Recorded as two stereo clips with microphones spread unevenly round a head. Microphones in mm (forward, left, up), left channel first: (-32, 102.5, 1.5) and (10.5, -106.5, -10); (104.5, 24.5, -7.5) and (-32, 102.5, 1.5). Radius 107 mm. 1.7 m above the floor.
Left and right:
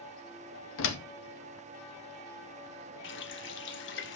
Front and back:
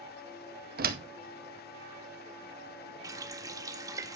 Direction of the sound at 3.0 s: 85° left.